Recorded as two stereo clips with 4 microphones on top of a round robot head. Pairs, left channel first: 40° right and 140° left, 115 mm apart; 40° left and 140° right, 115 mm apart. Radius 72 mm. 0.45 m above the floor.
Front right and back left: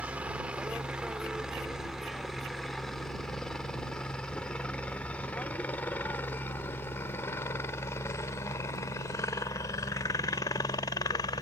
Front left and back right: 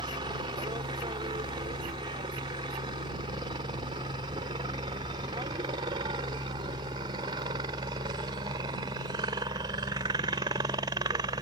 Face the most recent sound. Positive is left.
turn(degrees=-90)